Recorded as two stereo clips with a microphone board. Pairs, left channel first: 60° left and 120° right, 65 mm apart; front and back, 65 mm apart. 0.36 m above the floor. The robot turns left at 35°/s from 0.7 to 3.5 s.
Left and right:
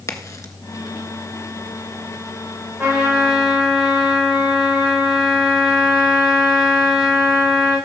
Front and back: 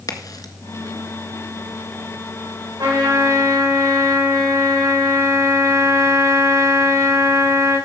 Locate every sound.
0.1 s a crack: 25° left, 1.6 m
2.8 s a trumpet: 170° left, 7.5 m; by 7.8 s 145° left, 7.5 m